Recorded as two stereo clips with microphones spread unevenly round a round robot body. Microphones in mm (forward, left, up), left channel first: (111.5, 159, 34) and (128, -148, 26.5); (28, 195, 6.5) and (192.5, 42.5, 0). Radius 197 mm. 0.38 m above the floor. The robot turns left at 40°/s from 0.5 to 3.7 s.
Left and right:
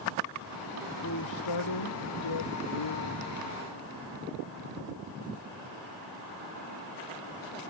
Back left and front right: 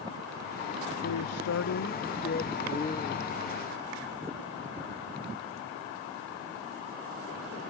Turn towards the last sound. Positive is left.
turn(degrees=45)